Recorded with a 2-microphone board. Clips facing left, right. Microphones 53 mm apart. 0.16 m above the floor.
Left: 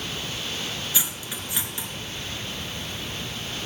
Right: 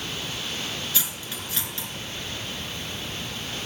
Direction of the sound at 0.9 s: 20° left (ahead or behind).